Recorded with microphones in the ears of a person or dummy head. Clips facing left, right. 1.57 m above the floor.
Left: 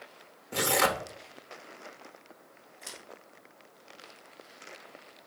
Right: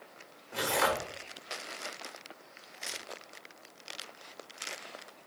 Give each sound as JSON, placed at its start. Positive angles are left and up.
{"t": 0.5, "sound": "tearing paper", "side_deg": 40, "distance_m": 0.8}
{"t": 2.8, "sound": "scissors", "side_deg": -5, "distance_m": 2.5}